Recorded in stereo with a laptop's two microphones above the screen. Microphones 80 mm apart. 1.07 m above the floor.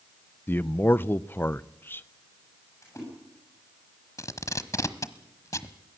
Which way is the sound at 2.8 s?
40° left (ahead or behind).